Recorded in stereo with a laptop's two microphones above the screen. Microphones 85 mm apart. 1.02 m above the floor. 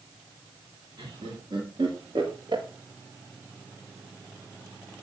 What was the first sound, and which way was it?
Laughter, 65° right (ahead or behind).